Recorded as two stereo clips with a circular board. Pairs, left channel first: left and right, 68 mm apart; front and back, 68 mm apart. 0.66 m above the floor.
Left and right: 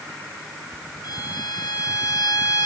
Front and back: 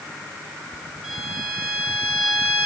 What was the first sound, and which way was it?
A violin, 95° left.